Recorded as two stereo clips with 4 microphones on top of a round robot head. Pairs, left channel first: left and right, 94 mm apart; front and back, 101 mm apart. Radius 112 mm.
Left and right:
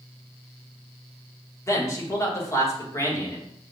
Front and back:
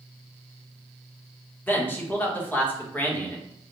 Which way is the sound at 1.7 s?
60° left.